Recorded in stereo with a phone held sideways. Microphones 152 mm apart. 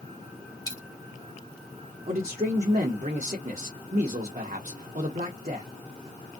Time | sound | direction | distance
0.7 | a dropped coin | 25° left (ahead or behind) | 1.3 m
2.1 | a man speaking | 55° right (ahead or behind) | 1.0 m